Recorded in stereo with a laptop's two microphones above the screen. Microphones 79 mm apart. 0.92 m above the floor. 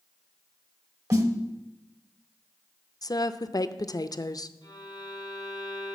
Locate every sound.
1.1 s a snare drum: 50° right (ahead or behind), 1.2 m
3.0 s a woman speaking: 55° left (ahead or behind), 0.5 m
4.6 s a violin: 65° left (ahead or behind), 4 m